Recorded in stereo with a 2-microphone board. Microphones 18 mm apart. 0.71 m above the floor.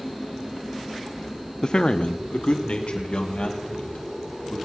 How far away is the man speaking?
About 0.5 m.